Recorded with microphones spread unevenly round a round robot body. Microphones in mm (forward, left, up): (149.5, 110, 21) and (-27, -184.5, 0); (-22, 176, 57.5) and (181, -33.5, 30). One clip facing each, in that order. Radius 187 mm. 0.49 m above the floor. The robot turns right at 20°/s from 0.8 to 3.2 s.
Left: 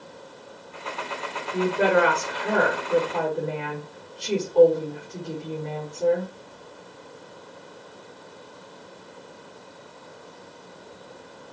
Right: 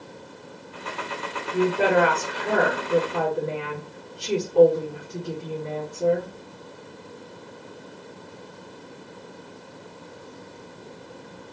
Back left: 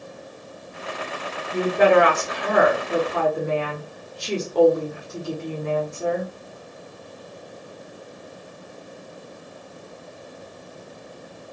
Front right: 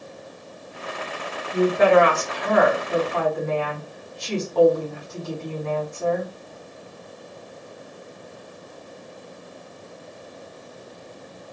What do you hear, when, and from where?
1.5 s a woman speaking: 135° left, 1.0 m; by 6.3 s 170° left, 1.0 m